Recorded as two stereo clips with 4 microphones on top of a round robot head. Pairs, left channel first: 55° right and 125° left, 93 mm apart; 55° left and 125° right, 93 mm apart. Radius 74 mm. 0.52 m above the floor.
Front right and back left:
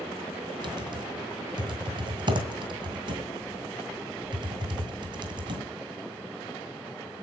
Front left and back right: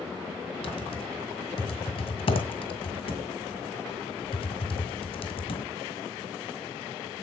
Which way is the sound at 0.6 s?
85° left.